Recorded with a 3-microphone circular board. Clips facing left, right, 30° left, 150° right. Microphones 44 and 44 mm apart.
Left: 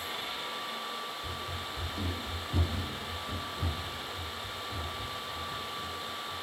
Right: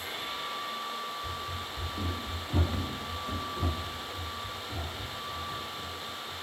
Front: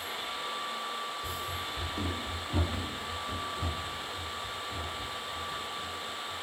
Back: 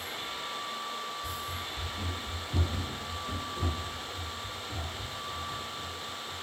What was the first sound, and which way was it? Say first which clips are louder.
Running footsteps: right 1 dB, front 1 dB; 30° left.